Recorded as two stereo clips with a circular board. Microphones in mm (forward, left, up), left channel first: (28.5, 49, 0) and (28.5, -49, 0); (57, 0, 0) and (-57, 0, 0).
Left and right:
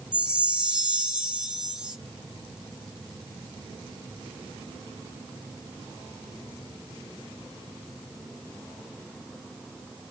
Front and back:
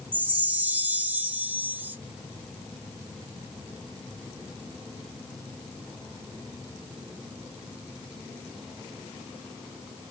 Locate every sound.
0.1 s a chime: 145° right, 0.5 m